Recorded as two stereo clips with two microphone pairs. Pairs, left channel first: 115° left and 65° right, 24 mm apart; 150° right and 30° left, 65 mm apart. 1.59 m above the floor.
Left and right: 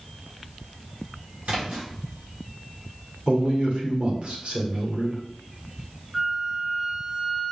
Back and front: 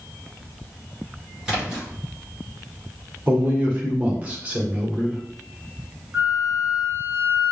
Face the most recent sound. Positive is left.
turn(degrees=-5)